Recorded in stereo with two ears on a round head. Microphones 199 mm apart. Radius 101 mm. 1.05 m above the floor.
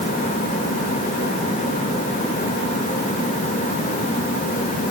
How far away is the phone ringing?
I don't hear a phone ringing.